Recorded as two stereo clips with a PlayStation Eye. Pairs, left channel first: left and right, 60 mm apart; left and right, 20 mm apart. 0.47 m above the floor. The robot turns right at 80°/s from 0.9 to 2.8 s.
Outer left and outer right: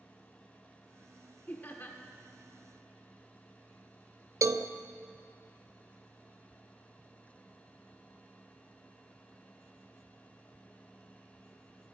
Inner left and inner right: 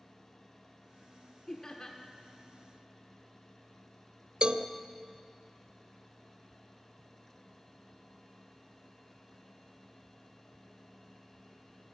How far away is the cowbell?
About 0.5 m.